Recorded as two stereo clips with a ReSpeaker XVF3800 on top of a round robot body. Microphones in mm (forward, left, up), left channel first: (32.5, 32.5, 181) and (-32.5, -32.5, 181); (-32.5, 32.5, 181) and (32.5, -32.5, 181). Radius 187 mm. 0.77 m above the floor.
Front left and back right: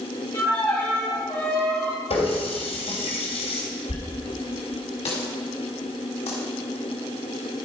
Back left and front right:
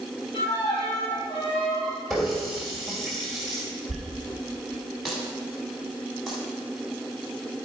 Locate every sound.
0.3 s a violin: 105° left, 3.5 m
2.1 s a running tap: 45° left, 2.5 m
3.9 s a dropped coin: 45° left, 0.8 m